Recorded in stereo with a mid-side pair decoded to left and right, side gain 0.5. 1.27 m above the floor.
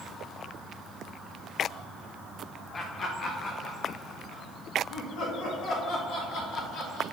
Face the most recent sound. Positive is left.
turn(degrees=80)